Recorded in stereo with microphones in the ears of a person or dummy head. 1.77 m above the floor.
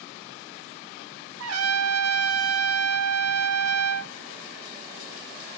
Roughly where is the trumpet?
Right.